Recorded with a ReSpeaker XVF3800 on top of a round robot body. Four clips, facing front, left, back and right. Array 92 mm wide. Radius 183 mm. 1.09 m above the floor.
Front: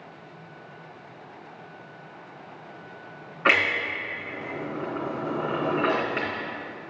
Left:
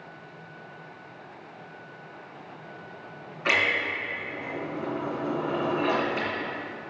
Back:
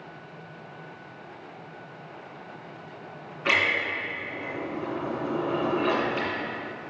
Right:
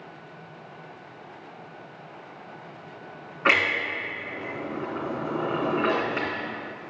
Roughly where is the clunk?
Ahead right.